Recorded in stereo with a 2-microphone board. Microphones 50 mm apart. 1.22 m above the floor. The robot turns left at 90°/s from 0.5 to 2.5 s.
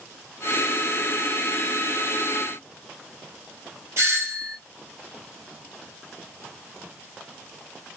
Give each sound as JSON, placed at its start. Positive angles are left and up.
{"t": 4.0, "sound": "a doorbell", "side_deg": -55, "distance_m": 1.9}